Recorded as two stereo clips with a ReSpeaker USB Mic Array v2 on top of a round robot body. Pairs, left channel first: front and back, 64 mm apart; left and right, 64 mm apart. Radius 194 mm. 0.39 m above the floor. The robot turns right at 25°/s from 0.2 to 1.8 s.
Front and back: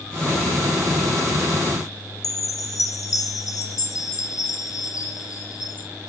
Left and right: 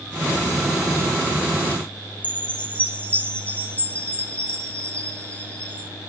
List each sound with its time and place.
2.2 s a chime: 20° left, 1.6 m